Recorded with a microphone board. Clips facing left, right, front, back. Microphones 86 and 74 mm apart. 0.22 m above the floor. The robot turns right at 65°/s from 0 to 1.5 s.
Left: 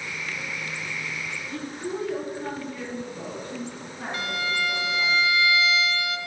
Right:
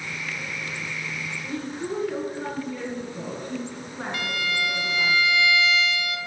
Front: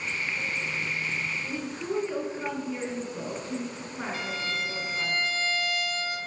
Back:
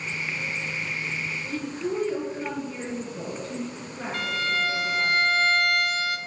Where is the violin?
150° left, 0.8 m.